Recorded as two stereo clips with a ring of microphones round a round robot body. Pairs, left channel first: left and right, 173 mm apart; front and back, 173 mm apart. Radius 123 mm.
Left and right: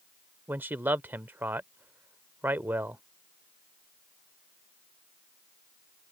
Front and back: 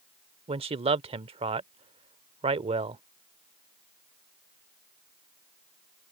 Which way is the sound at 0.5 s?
160° right.